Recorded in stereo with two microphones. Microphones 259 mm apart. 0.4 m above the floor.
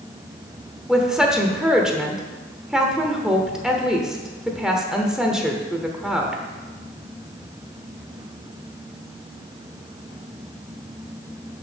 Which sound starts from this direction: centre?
A woman speaking, at 0.9 s.